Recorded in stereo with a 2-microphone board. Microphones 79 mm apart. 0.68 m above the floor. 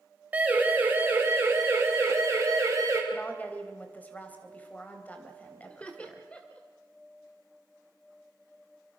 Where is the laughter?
15° left (ahead or behind), 1.9 m.